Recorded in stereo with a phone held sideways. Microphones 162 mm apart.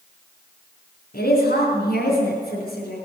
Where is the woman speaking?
80° left, 3.5 m.